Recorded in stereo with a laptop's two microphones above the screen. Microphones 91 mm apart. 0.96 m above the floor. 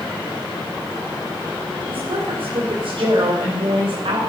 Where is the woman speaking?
75° right (ahead or behind), 3.5 m.